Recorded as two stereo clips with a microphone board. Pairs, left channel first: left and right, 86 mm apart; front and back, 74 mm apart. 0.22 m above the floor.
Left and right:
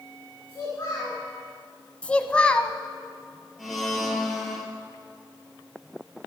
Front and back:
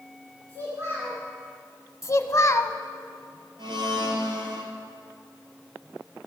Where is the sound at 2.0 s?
20° left, 0.7 m.